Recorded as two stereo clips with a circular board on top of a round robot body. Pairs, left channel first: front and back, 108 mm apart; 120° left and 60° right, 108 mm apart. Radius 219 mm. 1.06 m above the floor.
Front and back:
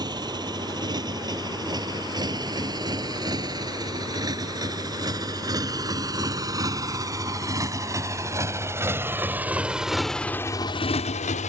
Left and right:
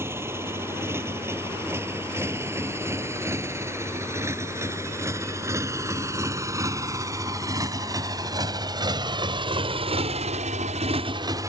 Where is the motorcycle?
130° right; by 11.5 s 5° left.